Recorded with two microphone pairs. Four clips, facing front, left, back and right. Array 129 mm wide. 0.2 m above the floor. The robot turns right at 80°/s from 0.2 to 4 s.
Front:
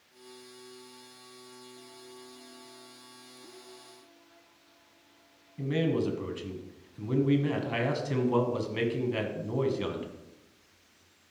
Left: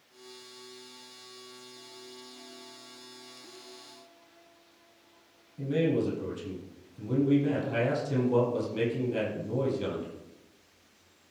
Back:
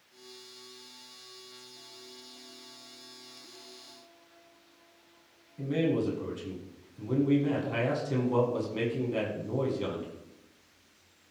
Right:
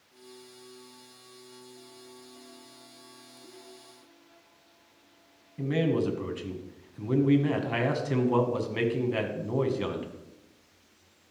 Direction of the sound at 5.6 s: 65° right.